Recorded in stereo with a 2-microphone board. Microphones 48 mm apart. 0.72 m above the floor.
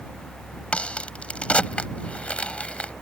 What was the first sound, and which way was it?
A crack, 25° left (ahead or behind).